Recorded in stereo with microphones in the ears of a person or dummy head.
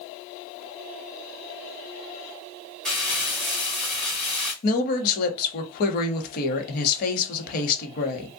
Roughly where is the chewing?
I don't hear chewing.